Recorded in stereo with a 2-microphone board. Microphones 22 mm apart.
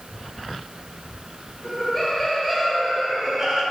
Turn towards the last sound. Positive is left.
turn(degrees=-40)  # may be behind; listen again after turning